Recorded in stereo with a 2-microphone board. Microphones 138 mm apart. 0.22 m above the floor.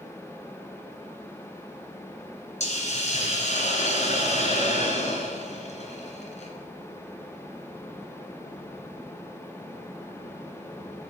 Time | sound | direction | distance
2.6 | a hiss | 55° left (ahead or behind) | 2.0 m